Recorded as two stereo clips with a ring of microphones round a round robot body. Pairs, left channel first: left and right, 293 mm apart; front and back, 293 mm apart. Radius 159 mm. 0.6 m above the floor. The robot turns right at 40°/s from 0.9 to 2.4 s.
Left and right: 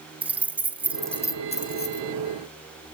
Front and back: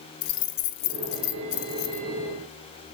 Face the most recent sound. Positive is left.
turn(degrees=55)